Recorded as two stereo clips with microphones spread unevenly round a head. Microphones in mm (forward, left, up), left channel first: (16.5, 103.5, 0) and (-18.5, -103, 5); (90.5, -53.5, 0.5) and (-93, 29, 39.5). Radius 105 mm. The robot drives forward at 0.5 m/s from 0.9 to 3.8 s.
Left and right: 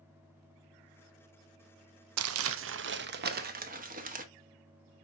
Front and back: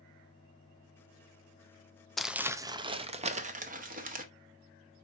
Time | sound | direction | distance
2.2 | crumpling | 115° right | 0.6 m